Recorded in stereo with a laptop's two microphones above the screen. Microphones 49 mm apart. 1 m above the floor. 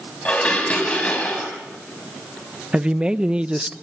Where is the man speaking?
20° right (ahead or behind), 0.8 m.